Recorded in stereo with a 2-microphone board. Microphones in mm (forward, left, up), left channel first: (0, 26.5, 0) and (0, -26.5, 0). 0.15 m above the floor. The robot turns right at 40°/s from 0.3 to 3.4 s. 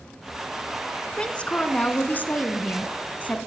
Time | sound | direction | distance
1.1 | a woman speaking | 30° left | 1.2 m